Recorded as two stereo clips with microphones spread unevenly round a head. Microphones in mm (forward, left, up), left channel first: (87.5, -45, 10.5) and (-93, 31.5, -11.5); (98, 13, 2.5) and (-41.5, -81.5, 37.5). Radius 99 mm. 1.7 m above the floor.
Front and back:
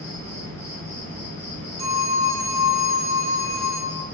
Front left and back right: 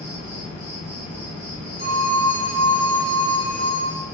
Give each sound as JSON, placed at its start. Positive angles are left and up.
{"t": 0.0, "sound": "an insect", "azimuth_deg": 10, "distance_m": 1.5}
{"t": 1.8, "sound": "a phone ringing", "azimuth_deg": 80, "distance_m": 1.0}